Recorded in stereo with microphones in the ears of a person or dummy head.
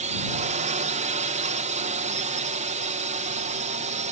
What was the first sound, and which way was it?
A drone, 35° right (ahead or behind).